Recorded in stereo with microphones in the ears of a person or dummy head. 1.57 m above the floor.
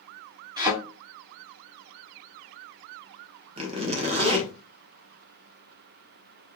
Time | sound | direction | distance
0.6 | a thud | 20° right (ahead or behind) | 1.9 m
3.6 | a zipper | 30° right (ahead or behind) | 1.1 m